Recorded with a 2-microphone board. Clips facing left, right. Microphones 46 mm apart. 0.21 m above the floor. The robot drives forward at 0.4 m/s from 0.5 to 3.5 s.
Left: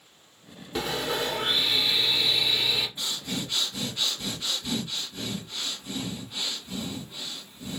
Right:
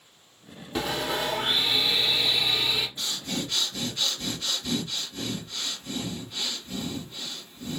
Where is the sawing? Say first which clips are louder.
Even; 5° right (ahead or behind), 0.9 m; by 2.9 s centre (ahead or behind), 1.7 m.